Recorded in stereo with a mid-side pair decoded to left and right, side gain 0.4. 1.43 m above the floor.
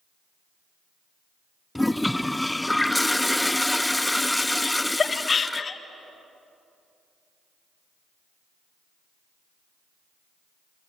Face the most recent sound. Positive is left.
turn(degrees=40)